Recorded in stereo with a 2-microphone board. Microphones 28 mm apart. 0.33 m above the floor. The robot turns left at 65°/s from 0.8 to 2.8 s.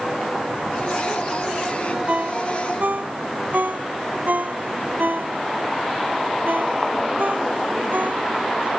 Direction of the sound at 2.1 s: 55° right (ahead or behind).